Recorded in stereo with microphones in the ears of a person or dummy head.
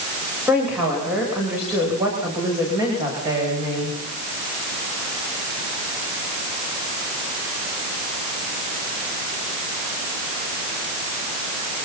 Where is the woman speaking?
Centre (ahead or behind), 8 m; by 4.0 s 15° right (ahead or behind), 9.5 m.